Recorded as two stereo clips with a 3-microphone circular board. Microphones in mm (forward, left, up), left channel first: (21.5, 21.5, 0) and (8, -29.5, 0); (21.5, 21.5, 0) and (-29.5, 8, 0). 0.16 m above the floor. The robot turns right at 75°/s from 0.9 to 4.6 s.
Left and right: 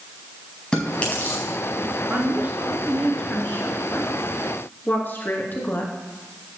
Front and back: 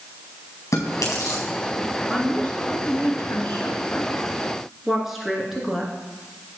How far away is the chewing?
About 4.5 m.